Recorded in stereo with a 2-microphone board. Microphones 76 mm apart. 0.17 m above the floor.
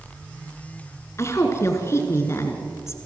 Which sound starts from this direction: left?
A woman speaking, at 1.2 s.